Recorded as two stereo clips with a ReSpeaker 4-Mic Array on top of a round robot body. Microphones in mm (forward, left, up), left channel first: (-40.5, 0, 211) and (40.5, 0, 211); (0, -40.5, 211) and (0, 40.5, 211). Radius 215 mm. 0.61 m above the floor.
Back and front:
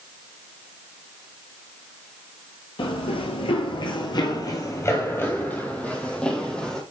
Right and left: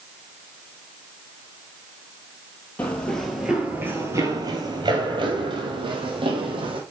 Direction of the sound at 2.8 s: 160° right.